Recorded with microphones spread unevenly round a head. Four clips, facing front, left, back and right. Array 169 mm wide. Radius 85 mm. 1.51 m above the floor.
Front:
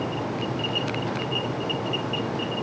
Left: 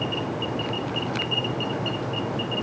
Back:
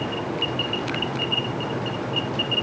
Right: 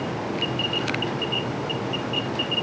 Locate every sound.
Only background noise.